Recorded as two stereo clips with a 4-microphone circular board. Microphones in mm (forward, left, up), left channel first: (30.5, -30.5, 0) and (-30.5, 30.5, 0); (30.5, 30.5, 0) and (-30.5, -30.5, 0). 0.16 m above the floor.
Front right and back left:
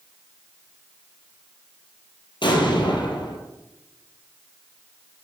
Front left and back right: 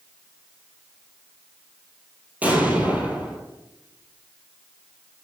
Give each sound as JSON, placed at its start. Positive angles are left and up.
{"t": 2.4, "sound": "an explosion", "azimuth_deg": -65, "distance_m": 1.5}